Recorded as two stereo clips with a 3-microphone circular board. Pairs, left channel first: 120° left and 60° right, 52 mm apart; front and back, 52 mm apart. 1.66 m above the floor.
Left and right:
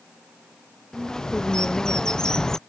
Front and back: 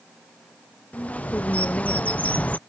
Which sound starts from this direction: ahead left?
A bird, at 0.9 s.